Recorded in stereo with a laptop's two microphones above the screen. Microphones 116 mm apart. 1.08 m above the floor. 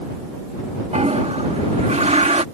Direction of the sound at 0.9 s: 75° right (ahead or behind).